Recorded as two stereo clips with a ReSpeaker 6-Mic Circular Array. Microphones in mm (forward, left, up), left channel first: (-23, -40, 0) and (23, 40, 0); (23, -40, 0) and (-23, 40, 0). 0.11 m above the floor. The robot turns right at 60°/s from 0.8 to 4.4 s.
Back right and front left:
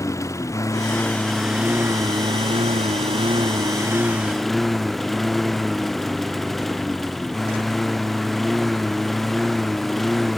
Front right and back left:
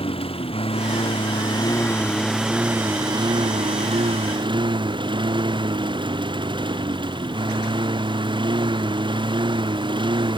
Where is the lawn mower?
65° right; by 10.4 s 150° left.